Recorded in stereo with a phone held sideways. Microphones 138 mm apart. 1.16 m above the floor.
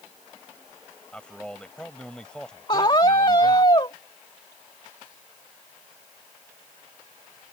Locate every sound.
1.1 s a man speaking: 5° left (ahead or behind)
2.7 s a scream: 35° left (ahead or behind)